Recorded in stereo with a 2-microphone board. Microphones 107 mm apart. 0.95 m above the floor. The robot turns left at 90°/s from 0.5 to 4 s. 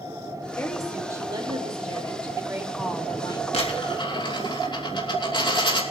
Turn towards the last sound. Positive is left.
turn(degrees=50)